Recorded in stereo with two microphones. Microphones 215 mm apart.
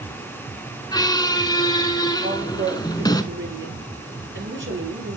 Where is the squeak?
20° left (ahead or behind), 0.8 m.